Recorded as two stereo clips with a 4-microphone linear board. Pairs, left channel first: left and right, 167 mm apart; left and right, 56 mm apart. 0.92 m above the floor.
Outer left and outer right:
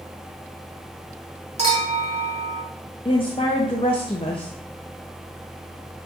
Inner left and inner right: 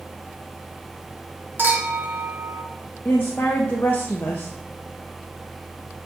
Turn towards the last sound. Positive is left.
turn(degrees=35)  # may be behind; listen again after turning